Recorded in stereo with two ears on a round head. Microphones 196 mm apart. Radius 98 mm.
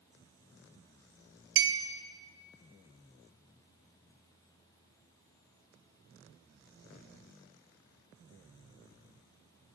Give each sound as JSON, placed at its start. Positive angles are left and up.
{"t": 1.6, "sound": "a clink", "side_deg": -55, "distance_m": 0.7}